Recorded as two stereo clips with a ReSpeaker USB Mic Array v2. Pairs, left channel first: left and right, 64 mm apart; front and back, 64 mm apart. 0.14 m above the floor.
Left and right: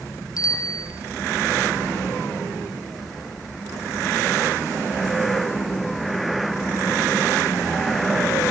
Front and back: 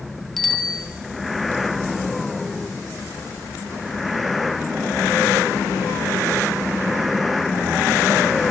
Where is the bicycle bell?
90° left, 2 m.